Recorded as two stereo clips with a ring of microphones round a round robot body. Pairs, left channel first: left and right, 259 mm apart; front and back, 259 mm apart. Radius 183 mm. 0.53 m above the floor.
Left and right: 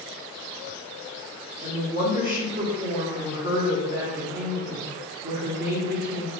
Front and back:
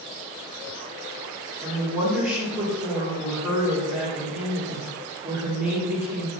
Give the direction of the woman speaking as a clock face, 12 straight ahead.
4 o'clock.